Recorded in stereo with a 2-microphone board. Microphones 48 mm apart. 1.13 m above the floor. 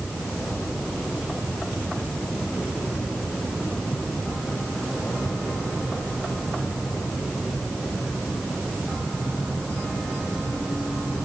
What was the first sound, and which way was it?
Only background noise.